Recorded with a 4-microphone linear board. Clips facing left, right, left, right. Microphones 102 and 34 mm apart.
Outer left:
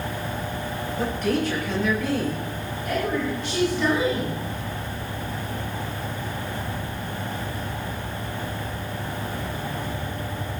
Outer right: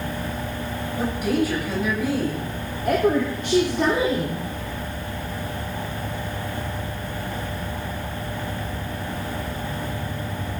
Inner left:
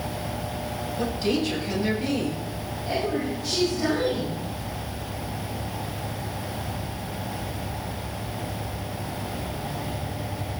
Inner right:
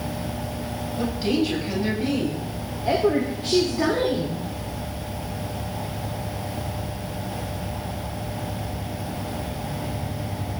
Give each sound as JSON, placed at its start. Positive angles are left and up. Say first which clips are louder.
{"t": 1.0, "sound": "a woman speaking", "louder": "outer right 2 dB, inner right 2 dB", "side_deg": -10, "distance_m": 6.5}
{"t": 2.9, "sound": "a woman speaking", "louder": "outer right 6 dB, inner right 6 dB", "side_deg": -50, "distance_m": 2.5}